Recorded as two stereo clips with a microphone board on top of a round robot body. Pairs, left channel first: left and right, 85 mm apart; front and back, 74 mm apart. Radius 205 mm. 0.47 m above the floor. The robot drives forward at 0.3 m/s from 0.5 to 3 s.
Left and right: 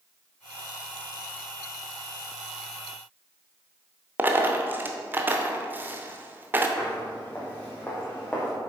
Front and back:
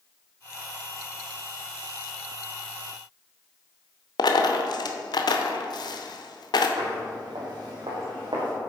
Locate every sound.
4.2 s a dropped coin: 20° right, 0.7 m
6.8 s footsteps: 155° left, 1.9 m; by 8.5 s 165° left, 3 m